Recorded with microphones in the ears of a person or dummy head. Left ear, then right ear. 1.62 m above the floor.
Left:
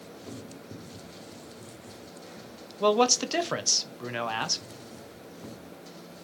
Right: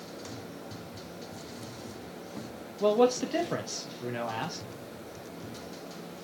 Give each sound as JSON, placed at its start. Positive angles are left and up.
{"t": 2.8, "sound": "a man speaking", "side_deg": 45, "distance_m": 1.1}